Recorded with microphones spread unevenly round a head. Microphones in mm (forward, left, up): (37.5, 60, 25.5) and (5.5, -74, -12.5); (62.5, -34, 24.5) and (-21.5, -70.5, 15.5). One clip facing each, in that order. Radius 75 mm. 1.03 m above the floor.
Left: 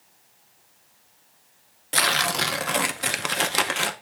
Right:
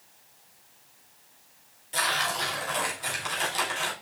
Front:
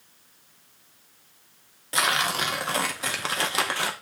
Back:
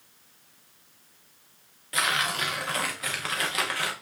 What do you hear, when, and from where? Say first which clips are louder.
1.9 s tearing paper: left 4 dB, front 3 dB; 85° left, 0.5 m